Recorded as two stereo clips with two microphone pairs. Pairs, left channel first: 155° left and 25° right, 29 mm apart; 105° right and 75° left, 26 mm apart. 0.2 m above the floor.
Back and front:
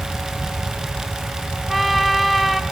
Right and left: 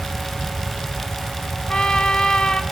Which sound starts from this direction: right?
A trumpet, at 1.7 s.